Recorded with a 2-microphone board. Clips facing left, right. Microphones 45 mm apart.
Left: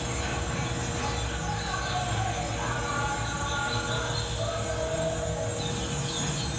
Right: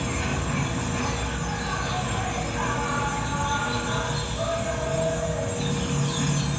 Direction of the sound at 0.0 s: 65° right (ahead or behind).